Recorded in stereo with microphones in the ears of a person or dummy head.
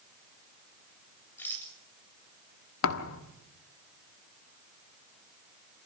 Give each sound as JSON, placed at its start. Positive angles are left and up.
{"t": 1.4, "sound": "a rattle", "side_deg": 5, "distance_m": 7.0}
{"t": 2.8, "sound": "a thud", "side_deg": 65, "distance_m": 1.5}